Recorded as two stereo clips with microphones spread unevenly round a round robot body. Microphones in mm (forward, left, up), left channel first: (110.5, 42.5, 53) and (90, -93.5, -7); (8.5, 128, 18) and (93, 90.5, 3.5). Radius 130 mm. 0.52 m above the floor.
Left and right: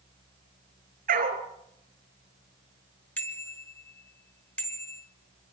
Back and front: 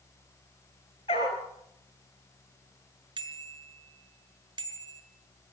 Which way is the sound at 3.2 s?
Straight ahead.